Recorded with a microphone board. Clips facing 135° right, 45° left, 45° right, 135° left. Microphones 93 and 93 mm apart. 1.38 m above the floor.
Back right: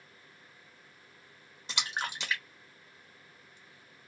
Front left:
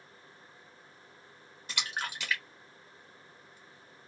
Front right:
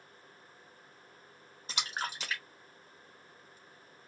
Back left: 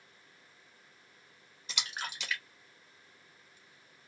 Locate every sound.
1.7 s a splash: 75° right, 0.9 m